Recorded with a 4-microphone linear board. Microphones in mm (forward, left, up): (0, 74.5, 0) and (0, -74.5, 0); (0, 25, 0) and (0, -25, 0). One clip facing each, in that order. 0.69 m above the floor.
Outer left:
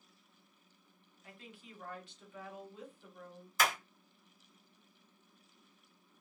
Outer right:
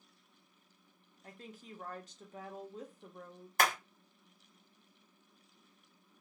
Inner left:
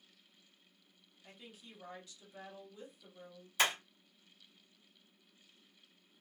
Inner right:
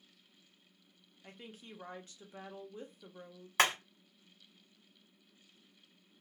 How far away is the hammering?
About 1.4 m.